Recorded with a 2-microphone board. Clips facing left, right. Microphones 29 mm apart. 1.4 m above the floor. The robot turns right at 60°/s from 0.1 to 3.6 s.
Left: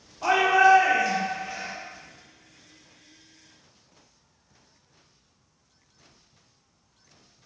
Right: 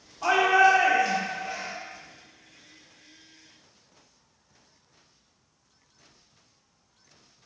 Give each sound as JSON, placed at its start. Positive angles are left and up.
{"t": 0.2, "sound": "a shout", "azimuth_deg": 175, "distance_m": 0.9}